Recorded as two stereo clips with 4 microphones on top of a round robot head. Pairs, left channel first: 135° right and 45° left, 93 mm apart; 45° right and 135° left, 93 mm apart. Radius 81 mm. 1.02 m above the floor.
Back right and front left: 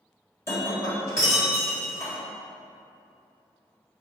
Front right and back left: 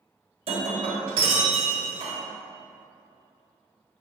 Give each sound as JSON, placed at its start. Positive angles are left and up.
{"t": 0.5, "sound": "breaking glass", "azimuth_deg": 160, "distance_m": 1.6}